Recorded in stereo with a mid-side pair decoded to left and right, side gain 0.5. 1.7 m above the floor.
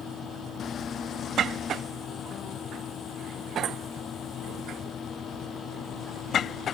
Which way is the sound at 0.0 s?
55° left.